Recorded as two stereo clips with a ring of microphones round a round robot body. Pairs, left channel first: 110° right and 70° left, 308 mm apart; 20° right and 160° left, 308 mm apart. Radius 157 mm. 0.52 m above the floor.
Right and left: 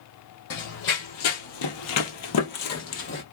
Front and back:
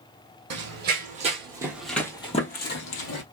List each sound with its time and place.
0.5 s running footsteps: 150° right, 1.3 m; by 3.2 s 60° right, 1.1 m